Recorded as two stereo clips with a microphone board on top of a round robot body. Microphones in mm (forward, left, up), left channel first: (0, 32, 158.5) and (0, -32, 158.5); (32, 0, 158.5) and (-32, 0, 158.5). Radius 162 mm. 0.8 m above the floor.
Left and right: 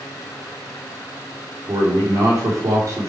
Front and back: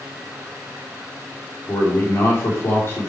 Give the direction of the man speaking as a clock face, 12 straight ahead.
2 o'clock.